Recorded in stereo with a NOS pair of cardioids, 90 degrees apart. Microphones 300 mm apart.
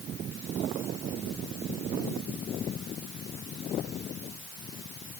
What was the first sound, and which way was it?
Only background noise.